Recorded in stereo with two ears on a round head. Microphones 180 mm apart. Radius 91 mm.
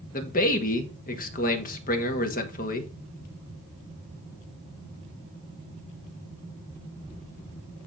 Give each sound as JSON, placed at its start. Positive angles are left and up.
{"t": 0.1, "sound": "a man speaking", "side_deg": 40, "distance_m": 1.7}